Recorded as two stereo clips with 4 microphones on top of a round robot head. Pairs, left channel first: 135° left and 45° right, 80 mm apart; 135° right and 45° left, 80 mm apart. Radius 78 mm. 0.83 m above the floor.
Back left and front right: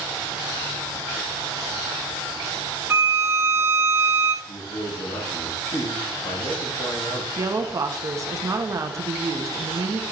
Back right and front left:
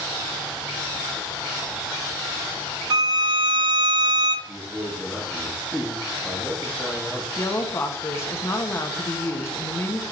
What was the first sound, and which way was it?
A violin, 15° left.